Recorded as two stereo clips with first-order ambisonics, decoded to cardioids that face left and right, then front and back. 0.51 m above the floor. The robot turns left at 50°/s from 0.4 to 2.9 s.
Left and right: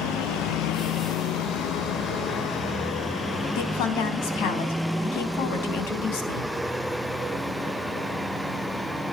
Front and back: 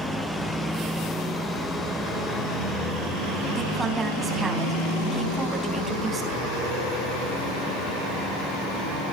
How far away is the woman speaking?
About 3.5 m.